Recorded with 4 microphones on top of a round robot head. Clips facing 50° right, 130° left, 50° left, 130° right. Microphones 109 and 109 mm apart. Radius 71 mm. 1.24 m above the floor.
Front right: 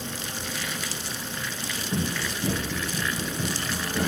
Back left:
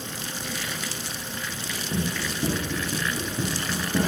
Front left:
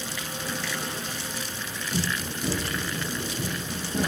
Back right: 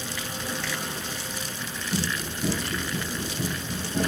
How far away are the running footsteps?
About 3.5 m.